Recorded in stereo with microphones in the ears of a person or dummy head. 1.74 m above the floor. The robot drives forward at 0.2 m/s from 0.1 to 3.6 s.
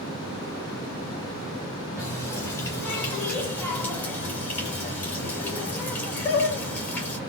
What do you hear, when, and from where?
2.0 s a running tap: 10° left (ahead or behind), 1.6 m